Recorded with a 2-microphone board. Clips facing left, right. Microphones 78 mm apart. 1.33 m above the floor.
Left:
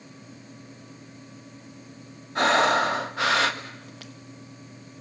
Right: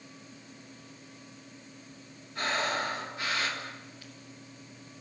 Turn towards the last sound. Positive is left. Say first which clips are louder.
# left 11 dB
turn(degrees=85)